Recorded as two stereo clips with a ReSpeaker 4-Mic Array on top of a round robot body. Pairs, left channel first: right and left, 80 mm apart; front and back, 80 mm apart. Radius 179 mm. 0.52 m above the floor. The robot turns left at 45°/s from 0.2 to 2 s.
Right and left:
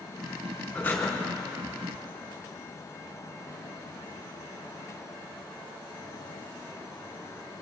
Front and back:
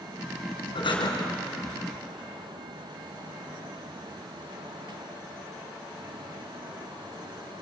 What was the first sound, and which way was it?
Breathing, 20° right.